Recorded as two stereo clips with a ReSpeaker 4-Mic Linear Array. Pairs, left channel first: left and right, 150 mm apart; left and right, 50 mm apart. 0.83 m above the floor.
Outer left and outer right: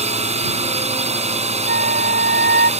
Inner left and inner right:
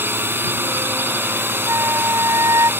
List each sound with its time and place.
0.0 s a drone: 45° right (ahead or behind)
1.7 s a flute: 85° right